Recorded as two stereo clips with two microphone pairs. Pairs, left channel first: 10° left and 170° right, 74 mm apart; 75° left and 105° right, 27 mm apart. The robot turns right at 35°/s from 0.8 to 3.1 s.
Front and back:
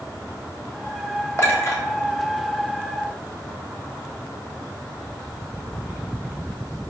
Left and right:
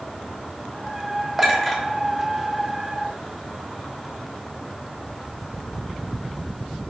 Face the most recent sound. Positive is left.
turn(degrees=40)